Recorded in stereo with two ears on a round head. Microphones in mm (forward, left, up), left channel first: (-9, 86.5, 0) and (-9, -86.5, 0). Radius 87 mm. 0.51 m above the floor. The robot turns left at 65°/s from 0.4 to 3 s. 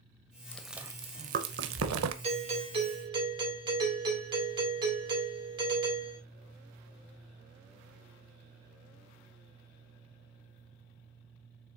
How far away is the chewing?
About 0.7 m.